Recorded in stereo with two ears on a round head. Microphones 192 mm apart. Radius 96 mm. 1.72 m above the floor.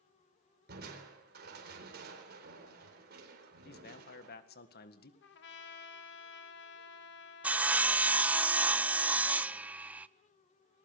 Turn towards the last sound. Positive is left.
turn(degrees=-5)  # may be behind; listen again after turning